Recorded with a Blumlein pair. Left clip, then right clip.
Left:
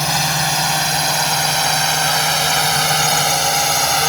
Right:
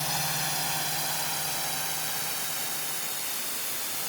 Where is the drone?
55° left; by 4.1 s 40° left.